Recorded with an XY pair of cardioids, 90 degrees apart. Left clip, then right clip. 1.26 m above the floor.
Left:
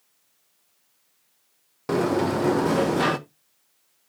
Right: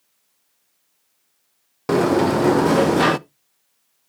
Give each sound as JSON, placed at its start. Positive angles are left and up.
{"t": 1.9, "sound": "a sliding door", "azimuth_deg": -50, "distance_m": 0.6}